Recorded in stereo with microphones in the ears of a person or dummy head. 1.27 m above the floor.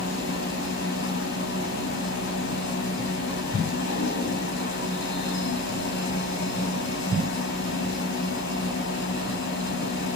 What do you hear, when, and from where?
0.0 s a machine running: 65° left (ahead or behind), 6.5 m